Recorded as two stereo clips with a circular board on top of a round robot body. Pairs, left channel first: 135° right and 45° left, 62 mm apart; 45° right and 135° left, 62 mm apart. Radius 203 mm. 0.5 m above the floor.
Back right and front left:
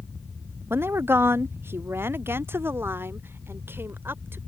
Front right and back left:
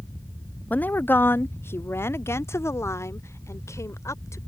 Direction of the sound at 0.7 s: 10° left.